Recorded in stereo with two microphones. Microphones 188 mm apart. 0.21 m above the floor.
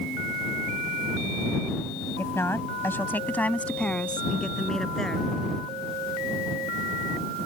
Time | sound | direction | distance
2.2 | a woman speaking | 15° left (ahead or behind) | ?